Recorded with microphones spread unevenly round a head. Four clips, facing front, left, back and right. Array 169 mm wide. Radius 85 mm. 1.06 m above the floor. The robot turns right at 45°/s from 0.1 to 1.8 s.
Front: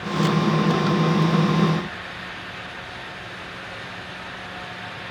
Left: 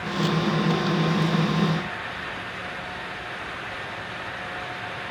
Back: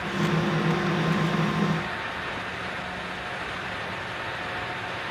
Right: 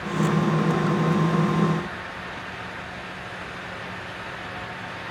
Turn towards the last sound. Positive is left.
No sound to turn to.